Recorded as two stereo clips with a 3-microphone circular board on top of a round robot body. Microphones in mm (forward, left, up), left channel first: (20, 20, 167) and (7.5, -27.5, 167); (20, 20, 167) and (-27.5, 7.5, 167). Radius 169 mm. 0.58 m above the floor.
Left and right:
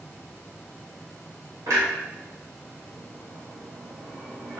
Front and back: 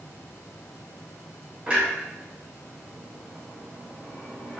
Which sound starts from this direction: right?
A clunk, at 1.7 s.